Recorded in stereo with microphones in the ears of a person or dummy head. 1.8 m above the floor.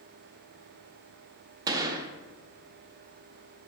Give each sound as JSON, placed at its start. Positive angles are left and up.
{"t": 1.7, "sound": "a gunshot", "side_deg": -20, "distance_m": 0.7}